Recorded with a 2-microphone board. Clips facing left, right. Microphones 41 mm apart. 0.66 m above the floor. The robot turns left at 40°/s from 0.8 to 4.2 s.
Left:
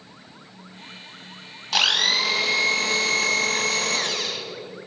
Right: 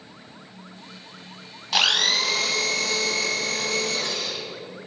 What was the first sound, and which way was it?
A blender, 175° right.